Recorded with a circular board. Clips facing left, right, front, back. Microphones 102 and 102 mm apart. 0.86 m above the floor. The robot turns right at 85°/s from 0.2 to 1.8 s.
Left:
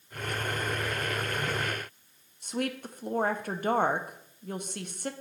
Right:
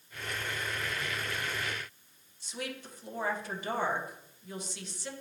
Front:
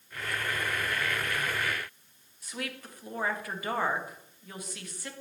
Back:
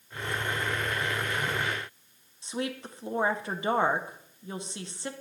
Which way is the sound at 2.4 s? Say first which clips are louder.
Left 8 dB, back 6 dB; 120° left.